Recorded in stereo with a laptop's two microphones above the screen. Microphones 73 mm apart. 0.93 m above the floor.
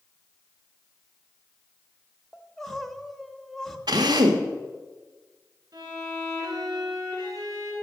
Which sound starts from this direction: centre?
Crying, at 2.3 s.